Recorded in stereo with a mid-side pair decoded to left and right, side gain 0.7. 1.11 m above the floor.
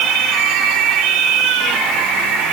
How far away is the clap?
No clap in this recording.